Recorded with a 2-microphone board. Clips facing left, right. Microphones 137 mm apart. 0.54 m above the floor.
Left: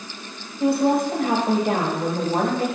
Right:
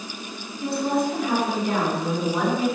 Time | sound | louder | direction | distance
0.6 | a woman speaking | left 5 dB | 65° left (ahead or behind) | 3.5 m